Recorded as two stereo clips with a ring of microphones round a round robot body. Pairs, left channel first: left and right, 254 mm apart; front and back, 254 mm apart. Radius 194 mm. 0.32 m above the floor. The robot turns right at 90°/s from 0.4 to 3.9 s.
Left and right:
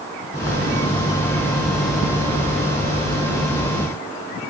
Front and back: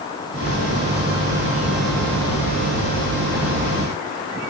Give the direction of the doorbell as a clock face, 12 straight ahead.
No doorbell in this recording.